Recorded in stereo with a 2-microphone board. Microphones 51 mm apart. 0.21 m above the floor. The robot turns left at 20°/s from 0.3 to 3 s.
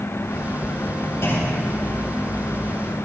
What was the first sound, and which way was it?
A clunk, 55° left (ahead or behind).